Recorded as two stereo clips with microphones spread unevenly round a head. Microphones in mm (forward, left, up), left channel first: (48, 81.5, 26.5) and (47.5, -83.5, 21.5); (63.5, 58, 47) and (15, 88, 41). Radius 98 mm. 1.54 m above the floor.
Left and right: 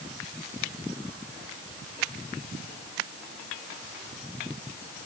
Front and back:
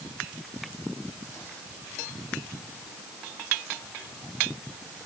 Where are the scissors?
I don't hear scissors.